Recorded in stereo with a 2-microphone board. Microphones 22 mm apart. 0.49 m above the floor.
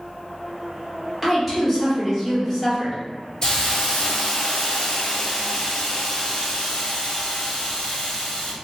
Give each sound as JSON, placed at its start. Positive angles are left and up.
{"t": 1.2, "sound": "a woman speaking", "side_deg": -5, "distance_m": 1.4}
{"t": 3.4, "sound": "a hiss", "side_deg": 30, "distance_m": 0.8}